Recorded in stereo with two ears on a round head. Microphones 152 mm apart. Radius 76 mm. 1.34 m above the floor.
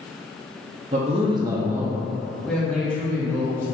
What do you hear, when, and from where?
0.9 s a man speaking: 40° right (ahead or behind), 0.6 m; by 3.6 s 10° left (ahead or behind), 2 m